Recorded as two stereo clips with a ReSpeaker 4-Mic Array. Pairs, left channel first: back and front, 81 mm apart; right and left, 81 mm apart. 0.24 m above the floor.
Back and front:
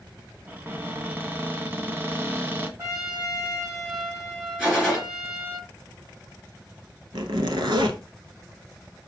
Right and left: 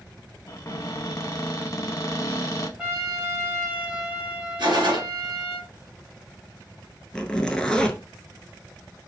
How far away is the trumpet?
About 1.9 m.